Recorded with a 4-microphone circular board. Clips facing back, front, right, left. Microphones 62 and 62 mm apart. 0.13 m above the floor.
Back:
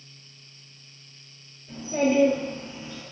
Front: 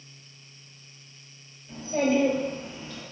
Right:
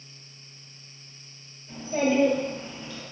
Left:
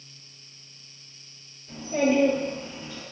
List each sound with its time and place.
1.7 s a child speaking: 165° left, 1.9 m; by 3.0 s 150° left, 1.4 m